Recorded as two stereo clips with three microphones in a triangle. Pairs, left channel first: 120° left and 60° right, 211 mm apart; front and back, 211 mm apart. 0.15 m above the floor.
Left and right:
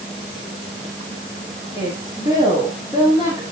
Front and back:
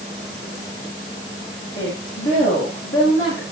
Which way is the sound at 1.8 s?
10° left.